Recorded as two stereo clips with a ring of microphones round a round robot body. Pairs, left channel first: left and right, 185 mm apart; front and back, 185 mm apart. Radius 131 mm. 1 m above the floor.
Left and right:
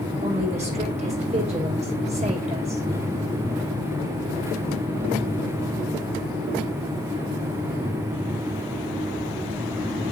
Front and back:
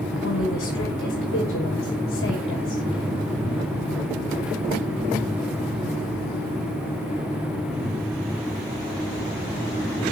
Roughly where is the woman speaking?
Ahead right.